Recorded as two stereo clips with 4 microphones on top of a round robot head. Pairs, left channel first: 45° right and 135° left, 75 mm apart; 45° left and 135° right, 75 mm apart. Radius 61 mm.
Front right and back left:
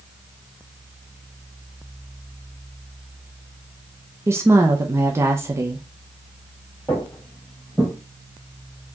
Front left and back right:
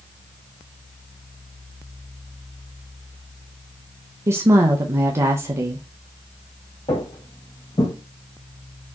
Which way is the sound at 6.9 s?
35° left.